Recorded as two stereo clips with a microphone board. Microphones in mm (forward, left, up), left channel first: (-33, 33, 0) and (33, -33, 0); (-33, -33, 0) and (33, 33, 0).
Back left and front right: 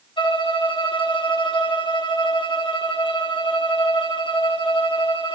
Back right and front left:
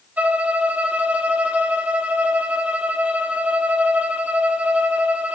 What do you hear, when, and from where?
0.2 s a violin: 115° left, 1.3 m